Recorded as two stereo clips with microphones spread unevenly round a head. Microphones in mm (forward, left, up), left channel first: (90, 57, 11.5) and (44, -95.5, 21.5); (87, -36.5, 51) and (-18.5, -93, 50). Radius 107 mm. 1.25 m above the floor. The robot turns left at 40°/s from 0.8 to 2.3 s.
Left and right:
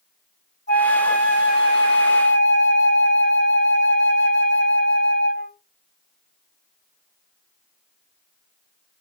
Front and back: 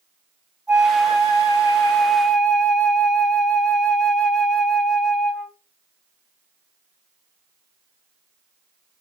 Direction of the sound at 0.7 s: 130° left.